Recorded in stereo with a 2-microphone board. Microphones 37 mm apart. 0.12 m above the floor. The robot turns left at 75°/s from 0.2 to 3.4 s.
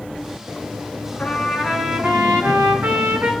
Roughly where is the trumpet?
Ahead left.